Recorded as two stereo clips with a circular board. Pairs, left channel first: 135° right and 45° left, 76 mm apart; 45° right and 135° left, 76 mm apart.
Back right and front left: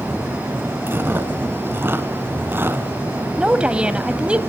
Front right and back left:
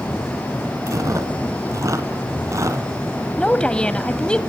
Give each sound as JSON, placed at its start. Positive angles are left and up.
{"t": 0.9, "sound": "chewing", "azimuth_deg": 100, "distance_m": 1.9}
{"t": 3.4, "sound": "a woman speaking", "azimuth_deg": 0, "distance_m": 1.0}